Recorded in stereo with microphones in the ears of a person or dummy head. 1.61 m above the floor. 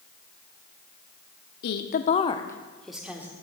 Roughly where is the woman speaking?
Left.